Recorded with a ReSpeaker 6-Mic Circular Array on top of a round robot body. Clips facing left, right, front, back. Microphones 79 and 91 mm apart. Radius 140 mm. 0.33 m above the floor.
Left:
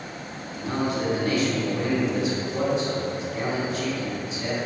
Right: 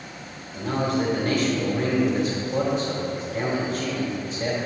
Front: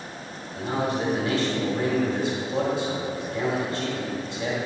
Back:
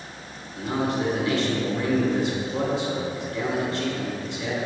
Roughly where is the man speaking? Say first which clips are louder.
Right 2 dB, back 1 dB; ahead right.